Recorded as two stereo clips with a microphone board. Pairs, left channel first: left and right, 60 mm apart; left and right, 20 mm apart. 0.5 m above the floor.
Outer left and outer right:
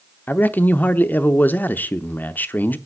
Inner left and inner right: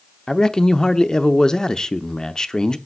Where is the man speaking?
30° left (ahead or behind), 0.7 m.